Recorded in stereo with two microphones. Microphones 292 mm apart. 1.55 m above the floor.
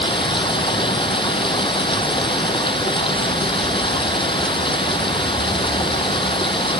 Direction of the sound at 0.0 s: 15° left (ahead or behind).